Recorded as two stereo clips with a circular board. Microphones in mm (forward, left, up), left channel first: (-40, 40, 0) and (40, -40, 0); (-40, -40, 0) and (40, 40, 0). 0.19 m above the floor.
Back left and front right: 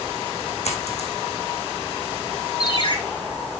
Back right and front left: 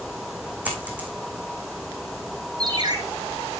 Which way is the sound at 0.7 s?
120° left.